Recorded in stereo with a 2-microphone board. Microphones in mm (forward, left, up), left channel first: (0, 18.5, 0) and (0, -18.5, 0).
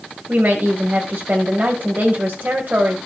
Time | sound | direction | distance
0.3 | a woman speaking | 55° right (ahead or behind) | 2.0 m